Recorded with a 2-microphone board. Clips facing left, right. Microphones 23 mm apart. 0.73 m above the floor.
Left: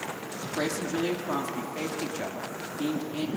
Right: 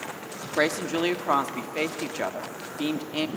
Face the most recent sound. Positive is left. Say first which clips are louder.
# right 5 dB
turn(degrees=-50)  # may be behind; listen again after turning